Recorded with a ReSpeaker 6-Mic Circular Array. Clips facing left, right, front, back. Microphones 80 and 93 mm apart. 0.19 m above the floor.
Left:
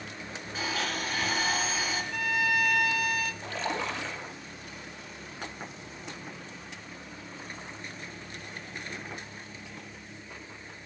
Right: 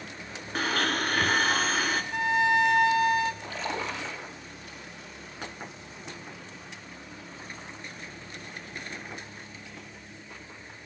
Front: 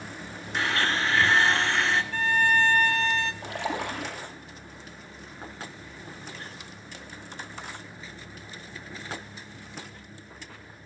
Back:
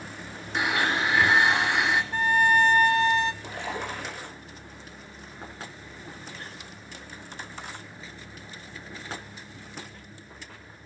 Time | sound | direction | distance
0.6 | a blender | 105° right | 2 m
2.1 | a violin | 130° right | 1.0 m
3.4 | a splash | 10° right | 7.5 m